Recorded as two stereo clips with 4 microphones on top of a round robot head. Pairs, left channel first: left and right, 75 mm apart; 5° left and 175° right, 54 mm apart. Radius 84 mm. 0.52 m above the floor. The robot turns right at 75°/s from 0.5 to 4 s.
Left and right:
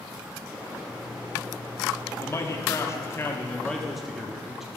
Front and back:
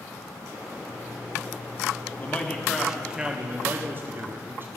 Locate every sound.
2.2 s a man speaking: 50° left, 1.5 m; by 4.7 s 175° right, 1.5 m